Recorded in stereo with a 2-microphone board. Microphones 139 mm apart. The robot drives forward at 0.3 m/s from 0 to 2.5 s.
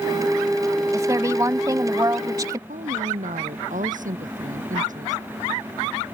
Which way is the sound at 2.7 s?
75° right (ahead or behind).